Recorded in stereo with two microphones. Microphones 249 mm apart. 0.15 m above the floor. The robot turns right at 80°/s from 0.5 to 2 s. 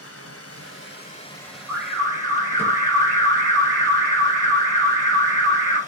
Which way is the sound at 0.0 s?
95° left.